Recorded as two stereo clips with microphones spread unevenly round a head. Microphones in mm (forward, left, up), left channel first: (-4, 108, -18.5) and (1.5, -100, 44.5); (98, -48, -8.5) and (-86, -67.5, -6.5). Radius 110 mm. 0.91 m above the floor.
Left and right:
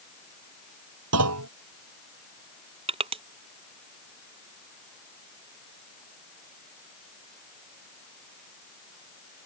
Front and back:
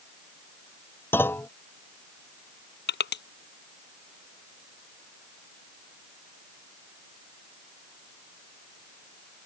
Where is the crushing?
25° right.